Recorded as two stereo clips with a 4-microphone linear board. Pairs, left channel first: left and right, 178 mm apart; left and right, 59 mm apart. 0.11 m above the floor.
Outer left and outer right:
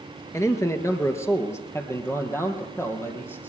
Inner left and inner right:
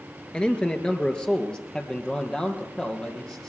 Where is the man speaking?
15° left (ahead or behind), 1.2 m.